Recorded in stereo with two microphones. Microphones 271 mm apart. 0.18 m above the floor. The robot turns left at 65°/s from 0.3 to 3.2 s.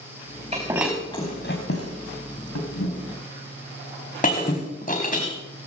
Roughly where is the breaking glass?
Right.